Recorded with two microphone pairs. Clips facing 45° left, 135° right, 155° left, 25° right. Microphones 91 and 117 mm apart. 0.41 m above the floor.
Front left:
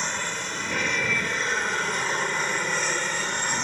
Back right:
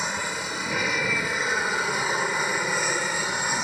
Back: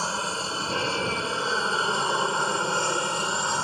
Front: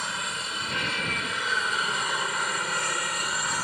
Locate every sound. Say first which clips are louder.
0.0 s an aircraft: back right 1 dB, back 5 dB; 145° left; by 3.6 s 150° left